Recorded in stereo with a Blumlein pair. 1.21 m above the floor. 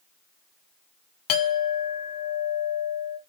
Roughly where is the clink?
Ahead left.